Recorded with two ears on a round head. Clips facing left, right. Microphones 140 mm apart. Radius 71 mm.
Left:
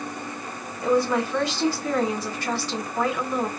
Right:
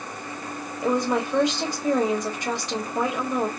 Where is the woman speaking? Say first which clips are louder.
Left 2 dB; 15° right (ahead or behind), 1.3 m.